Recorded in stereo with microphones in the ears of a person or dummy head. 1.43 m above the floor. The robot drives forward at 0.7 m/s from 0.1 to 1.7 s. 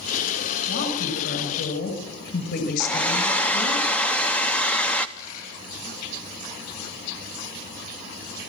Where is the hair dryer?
10° left (ahead or behind), 0.7 m.